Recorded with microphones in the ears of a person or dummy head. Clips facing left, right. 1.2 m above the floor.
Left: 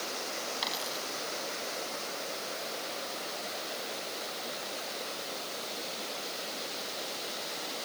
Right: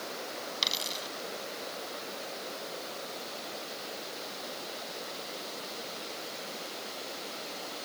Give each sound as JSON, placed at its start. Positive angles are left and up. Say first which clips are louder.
{"t": 0.6, "sound": "a dropped coin", "louder": "left 1 dB", "side_deg": -35}